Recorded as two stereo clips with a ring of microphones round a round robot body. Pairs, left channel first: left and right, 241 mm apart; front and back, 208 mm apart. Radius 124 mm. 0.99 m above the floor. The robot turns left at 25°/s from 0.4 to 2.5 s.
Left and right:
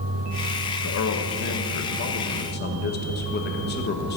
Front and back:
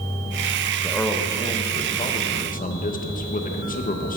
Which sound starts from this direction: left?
A man speaking, at 0.8 s.